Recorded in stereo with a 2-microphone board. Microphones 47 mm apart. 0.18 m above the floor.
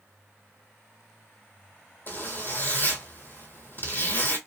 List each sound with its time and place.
2.1 s a zipper: 45° left (ahead or behind), 1.1 m